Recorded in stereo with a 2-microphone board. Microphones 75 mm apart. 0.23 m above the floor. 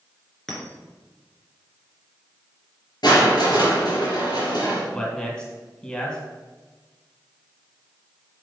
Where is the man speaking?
15° left (ahead or behind), 2.5 m.